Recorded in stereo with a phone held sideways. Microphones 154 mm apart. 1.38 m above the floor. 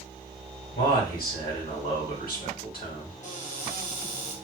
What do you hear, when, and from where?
0.8 s a man speaking: 65° left (ahead or behind), 2 m
3.2 s a cupboard door: 45° left (ahead or behind), 1.3 m